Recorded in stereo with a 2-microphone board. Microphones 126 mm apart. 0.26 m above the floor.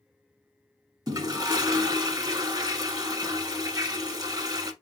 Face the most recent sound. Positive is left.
turn(degrees=-35)  # may be behind; listen again after turning